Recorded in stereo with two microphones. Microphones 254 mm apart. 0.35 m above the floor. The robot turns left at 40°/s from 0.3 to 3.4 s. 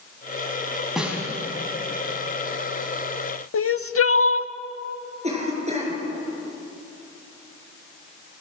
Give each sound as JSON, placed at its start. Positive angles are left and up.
{"t": 1.0, "sound": "a snare drum", "side_deg": 0, "distance_m": 3.5}
{"t": 3.5, "sound": "crying", "side_deg": 60, "distance_m": 0.5}
{"t": 5.2, "sound": "a cough", "side_deg": -25, "distance_m": 6.0}